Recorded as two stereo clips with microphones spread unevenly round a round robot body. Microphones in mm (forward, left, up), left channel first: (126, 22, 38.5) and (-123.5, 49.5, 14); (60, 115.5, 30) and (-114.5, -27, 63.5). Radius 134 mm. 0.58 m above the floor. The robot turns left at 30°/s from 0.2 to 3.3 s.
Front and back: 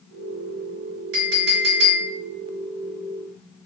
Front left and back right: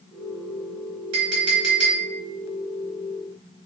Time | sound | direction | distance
1.1 | a clink | 145° right | 1.4 m